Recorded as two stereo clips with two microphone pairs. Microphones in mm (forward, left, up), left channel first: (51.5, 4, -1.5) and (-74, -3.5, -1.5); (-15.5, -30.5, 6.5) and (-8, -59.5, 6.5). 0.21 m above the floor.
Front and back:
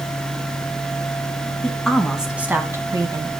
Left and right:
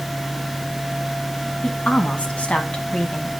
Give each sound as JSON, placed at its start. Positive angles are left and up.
{"t": 1.6, "sound": "a woman speaking", "azimuth_deg": 90, "distance_m": 2.0}